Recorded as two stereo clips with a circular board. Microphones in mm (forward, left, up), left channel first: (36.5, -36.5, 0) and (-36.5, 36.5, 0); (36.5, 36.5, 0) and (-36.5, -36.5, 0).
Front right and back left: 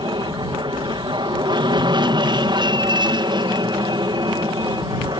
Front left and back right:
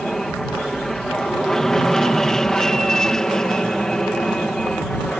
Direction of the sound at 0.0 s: 130° left.